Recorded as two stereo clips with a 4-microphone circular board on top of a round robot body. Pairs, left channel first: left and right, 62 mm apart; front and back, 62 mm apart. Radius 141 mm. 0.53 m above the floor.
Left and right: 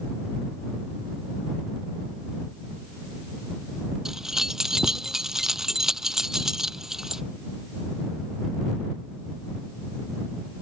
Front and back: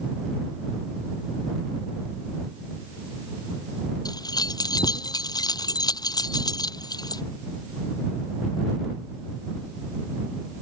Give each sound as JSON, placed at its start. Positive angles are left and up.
{"t": 4.0, "sound": "keys jangling", "azimuth_deg": -5}